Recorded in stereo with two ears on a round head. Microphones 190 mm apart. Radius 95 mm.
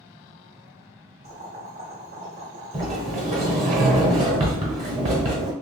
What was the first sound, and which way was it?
Boiling, 45° right (ahead or behind).